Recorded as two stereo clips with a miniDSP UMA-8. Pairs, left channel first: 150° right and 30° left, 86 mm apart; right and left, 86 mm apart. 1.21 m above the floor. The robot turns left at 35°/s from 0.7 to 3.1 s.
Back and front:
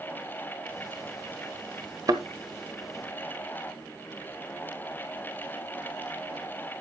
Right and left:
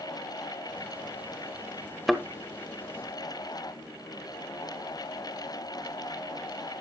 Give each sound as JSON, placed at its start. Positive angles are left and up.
{"t": 2.1, "sound": "a thud", "azimuth_deg": 5, "distance_m": 1.3}